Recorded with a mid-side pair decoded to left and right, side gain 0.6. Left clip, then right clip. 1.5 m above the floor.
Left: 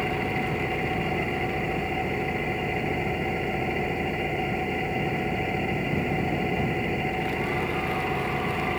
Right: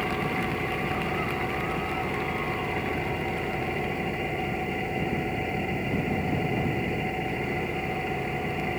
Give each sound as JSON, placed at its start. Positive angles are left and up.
{"t": 0.0, "sound": "an engine running", "azimuth_deg": 15}